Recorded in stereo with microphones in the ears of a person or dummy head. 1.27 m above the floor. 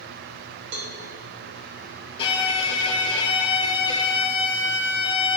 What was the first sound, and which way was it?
A cowbell, 65° right (ahead or behind).